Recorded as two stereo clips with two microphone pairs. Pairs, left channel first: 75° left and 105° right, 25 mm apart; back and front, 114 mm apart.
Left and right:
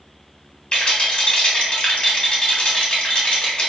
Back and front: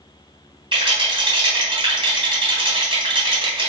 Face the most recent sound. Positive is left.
turn(degrees=30)